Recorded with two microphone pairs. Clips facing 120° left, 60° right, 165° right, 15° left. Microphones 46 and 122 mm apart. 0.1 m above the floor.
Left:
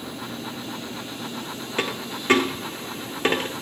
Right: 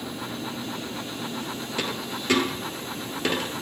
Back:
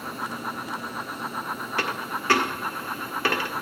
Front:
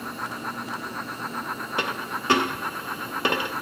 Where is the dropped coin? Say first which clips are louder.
Left 4 dB, even; 80° left, 0.8 m.